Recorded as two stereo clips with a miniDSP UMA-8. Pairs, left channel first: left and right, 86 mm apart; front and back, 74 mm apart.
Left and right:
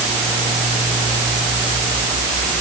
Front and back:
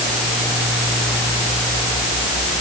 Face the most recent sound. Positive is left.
No sound to turn to.